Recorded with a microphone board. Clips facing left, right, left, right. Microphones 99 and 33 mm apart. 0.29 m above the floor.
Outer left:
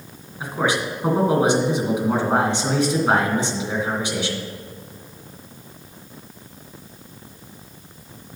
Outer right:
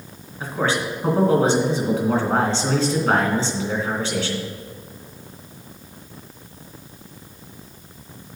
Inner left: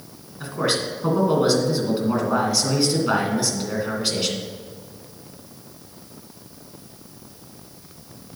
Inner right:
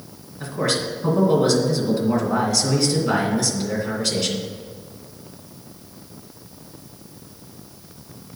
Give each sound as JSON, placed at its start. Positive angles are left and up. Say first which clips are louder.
{"t": 0.4, "sound": "a man speaking", "louder": "even, even", "side_deg": 15, "distance_m": 2.5}